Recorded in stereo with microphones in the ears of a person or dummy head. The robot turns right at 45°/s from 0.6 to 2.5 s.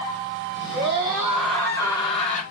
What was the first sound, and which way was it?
A scream, 35° right.